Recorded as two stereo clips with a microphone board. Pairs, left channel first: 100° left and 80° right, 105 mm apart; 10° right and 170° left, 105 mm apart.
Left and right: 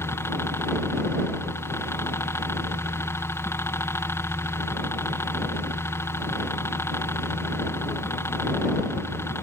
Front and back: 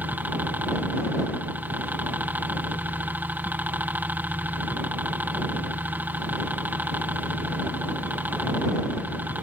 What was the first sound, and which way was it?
A helicopter, 120° left.